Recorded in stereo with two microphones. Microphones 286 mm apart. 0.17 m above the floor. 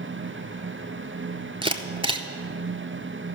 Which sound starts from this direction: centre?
A camera shutter, at 1.6 s.